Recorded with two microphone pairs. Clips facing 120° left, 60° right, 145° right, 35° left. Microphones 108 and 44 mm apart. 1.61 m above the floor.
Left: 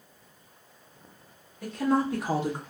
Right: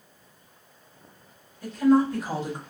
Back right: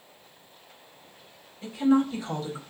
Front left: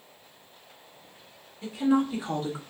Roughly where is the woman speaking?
Behind left.